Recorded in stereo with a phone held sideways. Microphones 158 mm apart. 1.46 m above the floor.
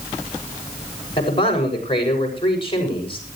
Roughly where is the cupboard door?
I don't hear a cupboard door.